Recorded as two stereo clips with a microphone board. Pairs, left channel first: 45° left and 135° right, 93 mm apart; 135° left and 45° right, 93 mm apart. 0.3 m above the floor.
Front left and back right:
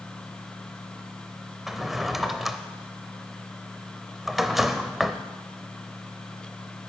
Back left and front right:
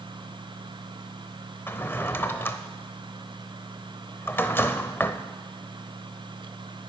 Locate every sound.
1.7 s a drawer: 145° left, 0.5 m